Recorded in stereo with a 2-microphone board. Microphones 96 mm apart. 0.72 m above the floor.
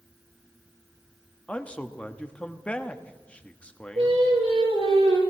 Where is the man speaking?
10° left (ahead or behind), 1.0 m.